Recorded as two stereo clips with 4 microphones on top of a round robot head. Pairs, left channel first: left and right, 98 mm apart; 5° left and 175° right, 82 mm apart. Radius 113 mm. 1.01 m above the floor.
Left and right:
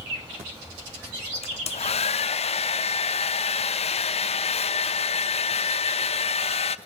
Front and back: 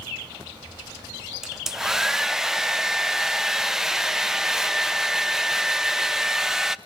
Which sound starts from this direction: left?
A hair dryer, at 1.4 s.